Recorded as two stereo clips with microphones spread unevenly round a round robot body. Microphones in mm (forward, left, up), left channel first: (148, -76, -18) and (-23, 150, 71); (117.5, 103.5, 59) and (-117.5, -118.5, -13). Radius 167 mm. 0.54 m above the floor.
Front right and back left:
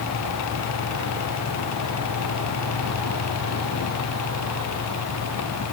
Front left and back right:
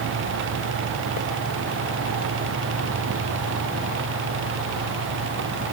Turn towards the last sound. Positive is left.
No sound to turn to.